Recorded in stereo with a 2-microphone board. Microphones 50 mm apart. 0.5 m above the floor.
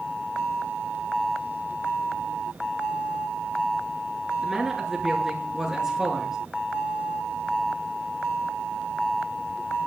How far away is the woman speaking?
About 7 m.